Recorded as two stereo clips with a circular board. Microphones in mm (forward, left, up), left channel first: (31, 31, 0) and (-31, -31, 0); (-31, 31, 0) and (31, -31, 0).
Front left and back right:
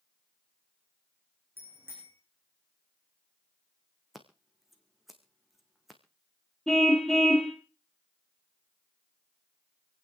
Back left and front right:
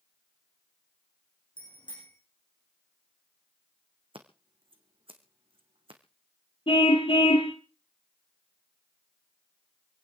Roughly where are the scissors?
Ahead right.